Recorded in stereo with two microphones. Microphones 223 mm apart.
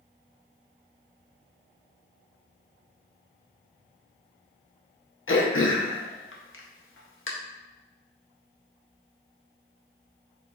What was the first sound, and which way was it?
Throat clearing, 65° left (ahead or behind).